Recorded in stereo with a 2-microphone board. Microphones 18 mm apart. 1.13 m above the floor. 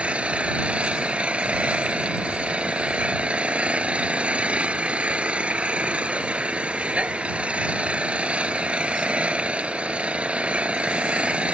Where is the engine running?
70° right (ahead or behind).